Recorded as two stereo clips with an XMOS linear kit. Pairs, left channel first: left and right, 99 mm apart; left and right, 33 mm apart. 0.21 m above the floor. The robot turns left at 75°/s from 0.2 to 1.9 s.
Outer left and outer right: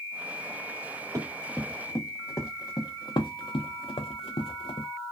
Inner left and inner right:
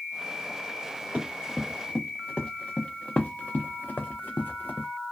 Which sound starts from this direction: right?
Running footsteps, at 1.1 s.